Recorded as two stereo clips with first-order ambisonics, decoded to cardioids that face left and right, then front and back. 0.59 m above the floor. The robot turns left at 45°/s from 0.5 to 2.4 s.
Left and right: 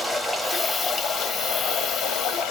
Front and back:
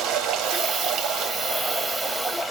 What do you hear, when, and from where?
0.0 s running water: 170° left, 0.9 m; by 2.5 s 85° left, 0.9 m